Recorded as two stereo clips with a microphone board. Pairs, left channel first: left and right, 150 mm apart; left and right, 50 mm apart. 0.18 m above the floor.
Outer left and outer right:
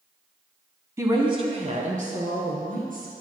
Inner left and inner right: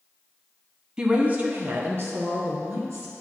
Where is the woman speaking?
20° right (ahead or behind), 1.0 m; by 3.1 s 70° right (ahead or behind), 3 m.